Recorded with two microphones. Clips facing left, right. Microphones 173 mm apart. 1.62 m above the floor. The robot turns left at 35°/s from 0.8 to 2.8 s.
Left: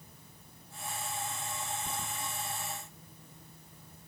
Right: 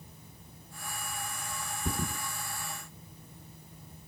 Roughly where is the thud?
Right.